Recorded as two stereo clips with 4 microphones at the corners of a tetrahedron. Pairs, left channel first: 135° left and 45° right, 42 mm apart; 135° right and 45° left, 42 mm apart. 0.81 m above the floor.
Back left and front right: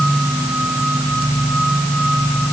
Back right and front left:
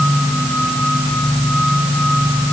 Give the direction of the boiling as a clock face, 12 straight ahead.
I don't hear boiling.